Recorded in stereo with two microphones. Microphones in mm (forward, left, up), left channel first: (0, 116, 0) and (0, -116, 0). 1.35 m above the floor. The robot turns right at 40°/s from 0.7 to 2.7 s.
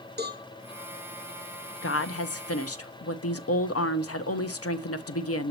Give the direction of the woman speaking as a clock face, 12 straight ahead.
10 o'clock.